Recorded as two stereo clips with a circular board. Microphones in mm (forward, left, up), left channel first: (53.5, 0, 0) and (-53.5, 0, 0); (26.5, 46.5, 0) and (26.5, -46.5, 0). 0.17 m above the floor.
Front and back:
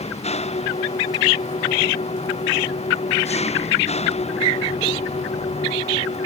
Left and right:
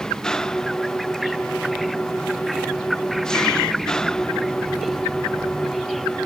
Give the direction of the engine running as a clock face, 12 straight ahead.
12 o'clock.